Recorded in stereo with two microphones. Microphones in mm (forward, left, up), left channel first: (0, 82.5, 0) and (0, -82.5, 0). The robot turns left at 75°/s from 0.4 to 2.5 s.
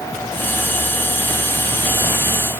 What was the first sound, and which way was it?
Only background noise.